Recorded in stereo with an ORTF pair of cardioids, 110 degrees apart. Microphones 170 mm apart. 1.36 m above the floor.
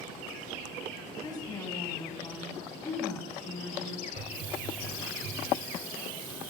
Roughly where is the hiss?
Ahead right.